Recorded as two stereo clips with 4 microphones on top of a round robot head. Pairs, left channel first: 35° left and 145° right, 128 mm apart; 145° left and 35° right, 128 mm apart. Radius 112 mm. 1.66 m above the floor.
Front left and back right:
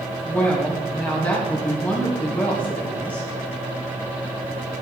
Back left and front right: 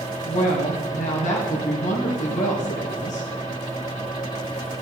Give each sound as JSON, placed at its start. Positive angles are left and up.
{"t": 0.2, "sound": "a woman speaking", "azimuth_deg": 115, "distance_m": 1.7}